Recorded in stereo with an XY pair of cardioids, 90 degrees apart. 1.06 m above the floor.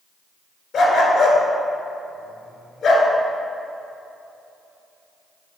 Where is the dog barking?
70° left, 1.7 m.